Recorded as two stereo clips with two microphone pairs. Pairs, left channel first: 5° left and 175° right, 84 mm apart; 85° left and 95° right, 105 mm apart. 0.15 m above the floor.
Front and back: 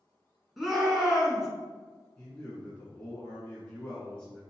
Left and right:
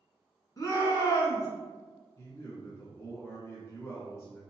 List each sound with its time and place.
0.6 s a shout: 100° left, 1.5 m
2.2 s a man speaking: 70° left, 1.3 m